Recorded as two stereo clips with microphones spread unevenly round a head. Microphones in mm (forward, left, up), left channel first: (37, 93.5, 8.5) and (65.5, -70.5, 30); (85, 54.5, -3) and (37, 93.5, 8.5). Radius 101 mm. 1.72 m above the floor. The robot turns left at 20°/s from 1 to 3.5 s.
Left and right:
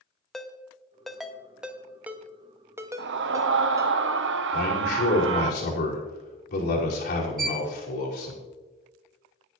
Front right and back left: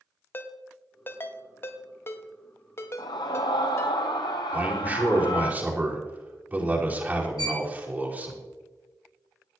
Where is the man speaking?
80° left, 5.5 m.